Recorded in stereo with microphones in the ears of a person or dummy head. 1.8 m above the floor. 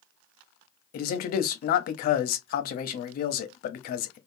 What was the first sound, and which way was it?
A man speaking, 60° left (ahead or behind).